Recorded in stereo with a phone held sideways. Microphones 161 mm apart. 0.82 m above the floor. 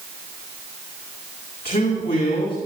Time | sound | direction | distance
1.6 | a man speaking | 70° left (ahead or behind) | 9 m